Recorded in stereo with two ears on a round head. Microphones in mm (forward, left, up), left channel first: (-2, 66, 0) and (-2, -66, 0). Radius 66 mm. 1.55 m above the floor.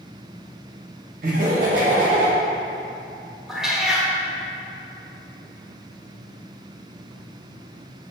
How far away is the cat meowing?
About 1.2 m.